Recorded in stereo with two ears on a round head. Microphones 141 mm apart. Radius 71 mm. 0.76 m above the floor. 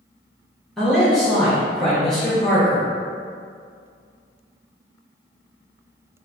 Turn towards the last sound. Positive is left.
turn(degrees=5)  # may be behind; listen again after turning